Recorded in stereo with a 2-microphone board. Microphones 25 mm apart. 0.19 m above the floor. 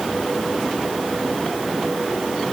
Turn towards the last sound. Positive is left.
No sound to turn to.